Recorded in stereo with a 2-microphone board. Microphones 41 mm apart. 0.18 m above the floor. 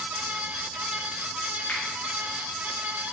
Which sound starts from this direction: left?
A finger snap, at 1.7 s.